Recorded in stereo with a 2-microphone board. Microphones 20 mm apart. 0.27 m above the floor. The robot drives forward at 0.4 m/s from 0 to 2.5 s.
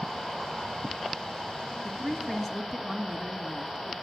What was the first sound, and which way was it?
A woman speaking, 20° left (ahead or behind).